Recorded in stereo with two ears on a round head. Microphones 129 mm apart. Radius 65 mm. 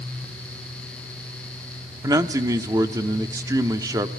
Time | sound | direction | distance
2.0 | a man speaking | 25° right (ahead or behind) | 0.9 m